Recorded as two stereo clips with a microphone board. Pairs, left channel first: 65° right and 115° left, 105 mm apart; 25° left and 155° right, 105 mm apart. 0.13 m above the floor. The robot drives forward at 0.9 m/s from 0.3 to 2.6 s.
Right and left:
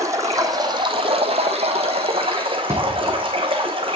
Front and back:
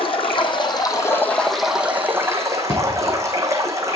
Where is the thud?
50° left, 2.5 m.